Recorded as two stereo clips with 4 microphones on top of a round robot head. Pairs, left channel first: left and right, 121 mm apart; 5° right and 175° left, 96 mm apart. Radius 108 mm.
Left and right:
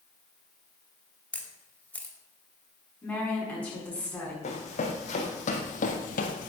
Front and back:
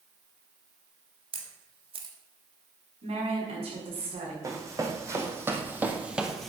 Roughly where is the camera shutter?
Behind.